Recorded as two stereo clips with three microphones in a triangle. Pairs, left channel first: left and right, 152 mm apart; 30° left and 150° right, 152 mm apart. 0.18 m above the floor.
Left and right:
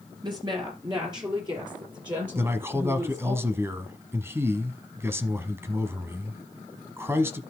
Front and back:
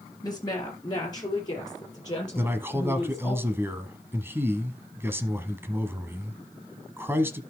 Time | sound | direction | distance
0.2 | a woman speaking | 30° right | 3 m
2.4 | a man speaking | 115° right | 1.0 m